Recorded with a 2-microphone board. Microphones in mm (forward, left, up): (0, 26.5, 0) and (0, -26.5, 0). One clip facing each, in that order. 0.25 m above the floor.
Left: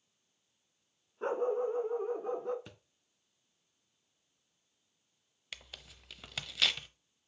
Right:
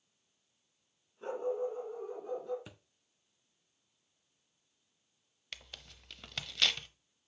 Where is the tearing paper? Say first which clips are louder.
Even; 5° left (ahead or behind), 0.5 m.